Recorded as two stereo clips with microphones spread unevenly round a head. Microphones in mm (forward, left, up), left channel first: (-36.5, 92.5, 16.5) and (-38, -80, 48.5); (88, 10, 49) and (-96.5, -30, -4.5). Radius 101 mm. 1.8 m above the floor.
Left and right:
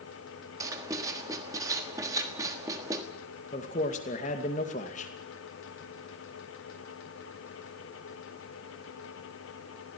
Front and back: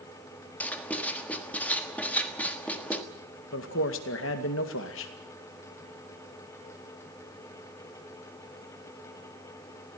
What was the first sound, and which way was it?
Writing, 40° right.